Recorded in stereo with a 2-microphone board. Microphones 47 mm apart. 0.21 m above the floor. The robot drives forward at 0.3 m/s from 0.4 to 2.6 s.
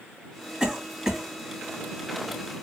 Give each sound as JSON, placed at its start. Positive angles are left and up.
{"t": 0.6, "sound": "a cough", "side_deg": -15, "distance_m": 1.7}